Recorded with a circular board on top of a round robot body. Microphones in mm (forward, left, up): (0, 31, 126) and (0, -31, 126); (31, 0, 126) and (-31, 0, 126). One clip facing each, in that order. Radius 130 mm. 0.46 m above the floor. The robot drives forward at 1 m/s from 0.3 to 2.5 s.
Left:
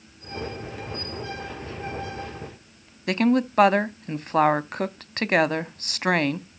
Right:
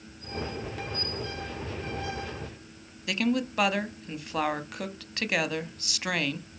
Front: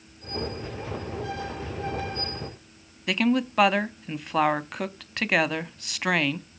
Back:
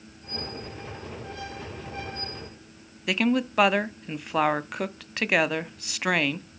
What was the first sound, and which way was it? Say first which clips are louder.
A woman speaking: left 7 dB, front 1 dB; 95° left.